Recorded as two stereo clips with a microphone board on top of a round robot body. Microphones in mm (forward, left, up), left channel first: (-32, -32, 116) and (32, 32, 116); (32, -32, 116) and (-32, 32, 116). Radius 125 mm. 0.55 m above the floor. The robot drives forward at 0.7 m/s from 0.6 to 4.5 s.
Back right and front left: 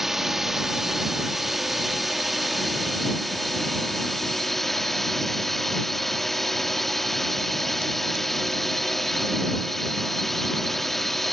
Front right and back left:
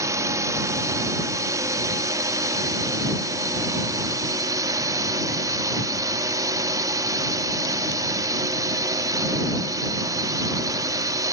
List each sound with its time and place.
0.0 s a drone: 130° left; by 11.3 s 140° left